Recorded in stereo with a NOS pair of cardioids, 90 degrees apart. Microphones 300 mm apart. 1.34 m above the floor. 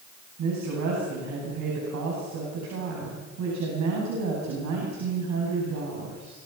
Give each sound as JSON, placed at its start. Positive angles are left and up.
{"t": 0.4, "sound": "a woman speaking", "azimuth_deg": -65, "distance_m": 9.0}